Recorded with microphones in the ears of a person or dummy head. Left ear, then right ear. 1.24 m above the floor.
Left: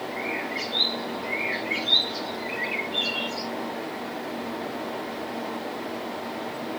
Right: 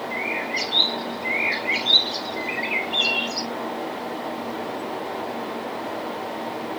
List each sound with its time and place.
0.1 s a bird: 45° right (ahead or behind), 2.5 m